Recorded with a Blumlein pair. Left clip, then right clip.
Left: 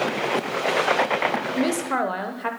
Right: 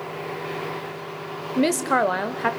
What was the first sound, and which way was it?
A woman speaking, 15° right.